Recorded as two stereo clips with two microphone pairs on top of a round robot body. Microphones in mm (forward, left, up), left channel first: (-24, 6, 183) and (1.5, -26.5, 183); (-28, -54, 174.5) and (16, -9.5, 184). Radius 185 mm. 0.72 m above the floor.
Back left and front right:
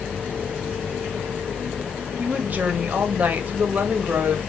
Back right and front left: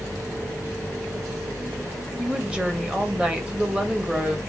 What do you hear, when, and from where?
2.2 s a woman speaking: 35° right, 1.2 m